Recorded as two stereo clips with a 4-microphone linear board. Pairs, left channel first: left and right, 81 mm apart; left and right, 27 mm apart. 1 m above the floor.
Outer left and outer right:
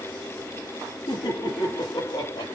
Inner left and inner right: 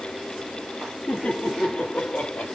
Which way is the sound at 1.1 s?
80° left.